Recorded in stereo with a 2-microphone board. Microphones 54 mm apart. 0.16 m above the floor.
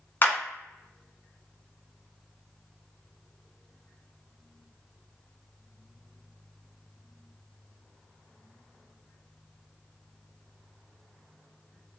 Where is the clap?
40° left (ahead or behind), 1.2 m.